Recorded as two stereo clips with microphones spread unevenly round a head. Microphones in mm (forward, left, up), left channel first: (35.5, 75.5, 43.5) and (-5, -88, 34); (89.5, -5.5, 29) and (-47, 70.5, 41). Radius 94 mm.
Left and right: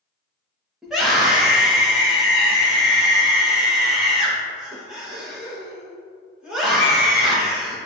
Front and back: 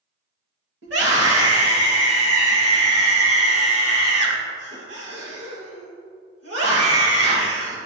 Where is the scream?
170° left, 3 m.